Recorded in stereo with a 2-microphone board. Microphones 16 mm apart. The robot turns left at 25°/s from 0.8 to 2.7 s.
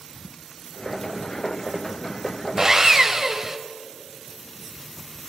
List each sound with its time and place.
2.6 s sawing: 35° right (ahead or behind), 1.2 m